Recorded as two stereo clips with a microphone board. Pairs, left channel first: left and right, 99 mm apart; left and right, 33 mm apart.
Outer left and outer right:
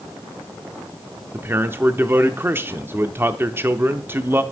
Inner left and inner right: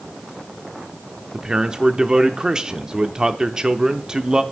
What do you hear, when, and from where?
1.3 s a man speaking: 25° right (ahead or behind), 0.8 m